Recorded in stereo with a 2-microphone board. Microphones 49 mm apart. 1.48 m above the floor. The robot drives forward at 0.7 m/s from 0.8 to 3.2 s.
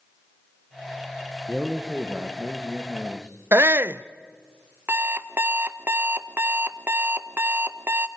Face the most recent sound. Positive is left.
turn(degrees=-45)  # may be behind; listen again after turning